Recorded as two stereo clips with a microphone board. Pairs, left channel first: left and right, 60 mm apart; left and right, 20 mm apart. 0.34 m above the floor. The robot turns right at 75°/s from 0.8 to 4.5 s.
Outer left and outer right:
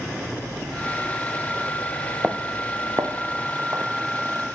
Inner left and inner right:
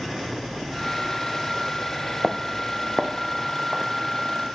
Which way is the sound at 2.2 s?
15° right (ahead or behind).